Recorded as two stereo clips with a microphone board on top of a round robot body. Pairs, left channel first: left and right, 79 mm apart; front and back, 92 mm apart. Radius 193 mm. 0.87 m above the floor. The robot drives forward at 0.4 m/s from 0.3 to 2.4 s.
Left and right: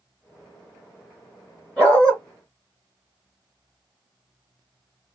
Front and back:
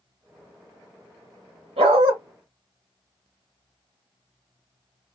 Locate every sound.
1.8 s a dog barking: 170° left, 1.4 m; by 2.1 s 175° left, 1.5 m